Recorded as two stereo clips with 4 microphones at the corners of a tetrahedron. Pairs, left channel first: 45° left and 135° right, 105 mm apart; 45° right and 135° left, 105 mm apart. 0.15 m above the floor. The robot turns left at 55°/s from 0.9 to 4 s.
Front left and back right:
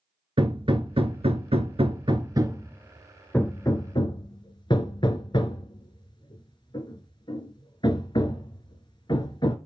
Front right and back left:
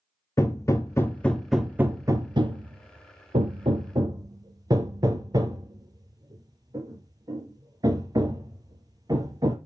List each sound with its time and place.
0.4 s hammering: 105° right, 0.7 m; by 9.6 s 85° left, 0.7 m